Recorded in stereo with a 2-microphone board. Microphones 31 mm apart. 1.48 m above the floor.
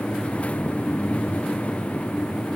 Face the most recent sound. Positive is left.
No sound to turn to.